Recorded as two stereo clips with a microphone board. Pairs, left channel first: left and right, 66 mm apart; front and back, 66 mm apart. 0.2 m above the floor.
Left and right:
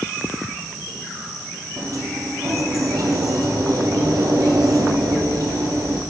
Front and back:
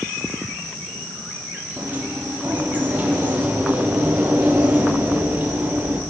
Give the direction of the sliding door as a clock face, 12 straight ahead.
4 o'clock.